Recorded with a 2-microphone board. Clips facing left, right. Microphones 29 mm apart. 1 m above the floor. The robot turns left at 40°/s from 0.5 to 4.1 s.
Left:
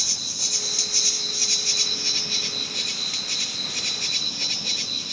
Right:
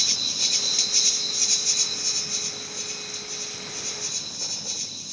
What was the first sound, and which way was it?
An insect, 155° right.